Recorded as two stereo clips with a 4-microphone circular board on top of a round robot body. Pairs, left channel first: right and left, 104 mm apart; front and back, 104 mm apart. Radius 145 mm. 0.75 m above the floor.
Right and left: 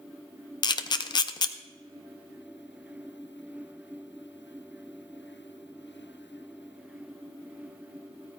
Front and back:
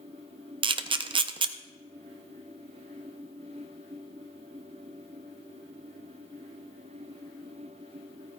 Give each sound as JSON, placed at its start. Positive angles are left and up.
{"t": 0.6, "sound": "a camera shutter", "azimuth_deg": -140, "distance_m": 0.6}